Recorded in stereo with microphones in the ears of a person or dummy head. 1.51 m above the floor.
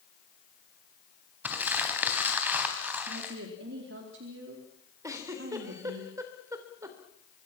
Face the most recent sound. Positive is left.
turn(degrees=-15)  # may be behind; listen again after turning